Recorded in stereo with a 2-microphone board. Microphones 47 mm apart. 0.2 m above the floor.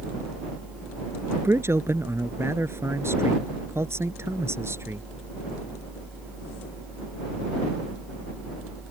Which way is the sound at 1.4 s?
70° right (ahead or behind).